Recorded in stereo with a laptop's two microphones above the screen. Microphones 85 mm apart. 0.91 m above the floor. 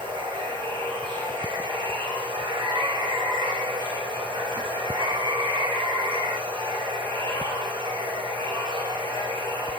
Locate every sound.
0.0 s running water: 65° right (ahead or behind), 4 m